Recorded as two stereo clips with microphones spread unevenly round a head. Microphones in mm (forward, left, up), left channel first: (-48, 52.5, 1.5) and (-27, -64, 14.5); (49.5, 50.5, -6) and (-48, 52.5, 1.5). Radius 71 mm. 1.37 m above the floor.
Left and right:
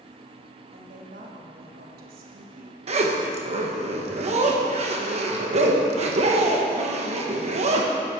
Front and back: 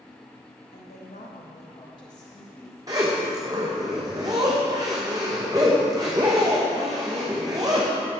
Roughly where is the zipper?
Right.